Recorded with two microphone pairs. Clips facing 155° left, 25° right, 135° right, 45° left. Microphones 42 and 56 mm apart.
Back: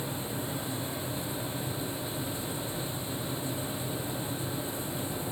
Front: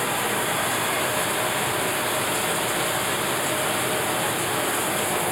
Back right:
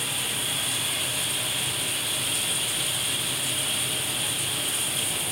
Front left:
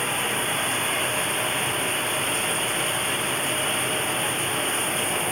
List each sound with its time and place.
0.0 s running water: 10° right